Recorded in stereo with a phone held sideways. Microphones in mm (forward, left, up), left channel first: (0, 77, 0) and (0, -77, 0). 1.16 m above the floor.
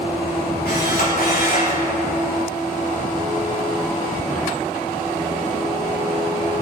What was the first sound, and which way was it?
A camera shutter, 85° left.